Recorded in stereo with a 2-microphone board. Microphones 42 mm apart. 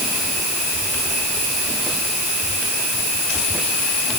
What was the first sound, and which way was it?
Only background noise.